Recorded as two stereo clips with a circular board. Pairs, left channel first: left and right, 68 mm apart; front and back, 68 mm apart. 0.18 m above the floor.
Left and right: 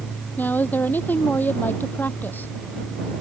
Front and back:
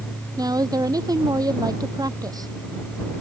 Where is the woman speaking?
155° left.